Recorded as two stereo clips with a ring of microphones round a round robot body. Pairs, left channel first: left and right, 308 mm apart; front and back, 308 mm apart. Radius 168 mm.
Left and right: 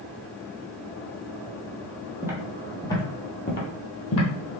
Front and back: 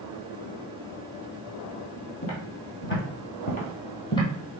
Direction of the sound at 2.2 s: 15° right.